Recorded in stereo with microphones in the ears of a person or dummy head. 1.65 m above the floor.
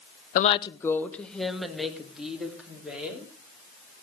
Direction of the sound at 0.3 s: 45° left (ahead or behind).